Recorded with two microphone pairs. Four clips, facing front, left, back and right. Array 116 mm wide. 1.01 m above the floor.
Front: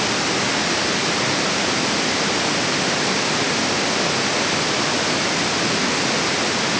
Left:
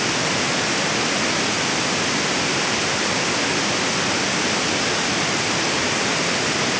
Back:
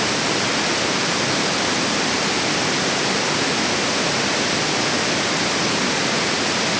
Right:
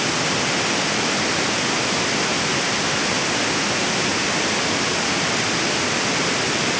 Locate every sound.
Only background noise.